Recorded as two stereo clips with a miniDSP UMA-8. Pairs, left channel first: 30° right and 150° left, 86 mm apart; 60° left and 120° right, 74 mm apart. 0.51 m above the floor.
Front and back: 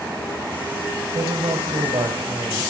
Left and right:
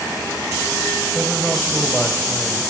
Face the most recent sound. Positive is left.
turn(degrees=150)